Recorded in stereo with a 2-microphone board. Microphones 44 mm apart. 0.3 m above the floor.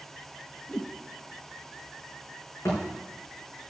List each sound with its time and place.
0.7 s a whoosh: 25° left (ahead or behind), 0.8 m
2.6 s a thud: 85° left, 5 m